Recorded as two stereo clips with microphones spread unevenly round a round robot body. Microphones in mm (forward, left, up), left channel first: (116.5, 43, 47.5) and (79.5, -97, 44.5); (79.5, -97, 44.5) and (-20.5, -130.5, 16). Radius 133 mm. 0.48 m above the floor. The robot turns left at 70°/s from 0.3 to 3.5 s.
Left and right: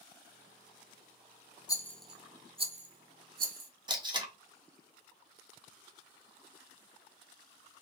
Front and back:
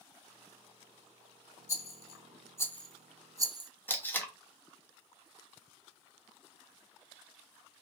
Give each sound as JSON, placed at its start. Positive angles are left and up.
{"t": 1.7, "sound": "a rattle", "azimuth_deg": 10, "distance_m": 0.8}
{"t": 3.9, "sound": "tape being pulled", "azimuth_deg": -65, "distance_m": 1.0}